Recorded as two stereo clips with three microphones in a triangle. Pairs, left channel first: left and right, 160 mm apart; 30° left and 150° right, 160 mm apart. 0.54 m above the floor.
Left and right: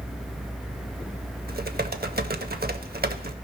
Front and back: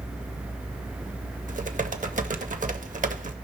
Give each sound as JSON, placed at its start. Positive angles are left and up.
{"t": 1.5, "sound": "typing on a keyboard", "azimuth_deg": -110, "distance_m": 0.7}